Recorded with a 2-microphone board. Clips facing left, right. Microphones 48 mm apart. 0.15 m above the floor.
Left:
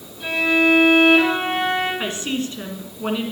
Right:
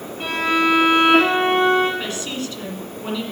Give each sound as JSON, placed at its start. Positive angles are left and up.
{"t": 0.2, "sound": "a violin", "side_deg": -60, "distance_m": 4.5}
{"t": 2.0, "sound": "a woman speaking", "side_deg": 30, "distance_m": 1.8}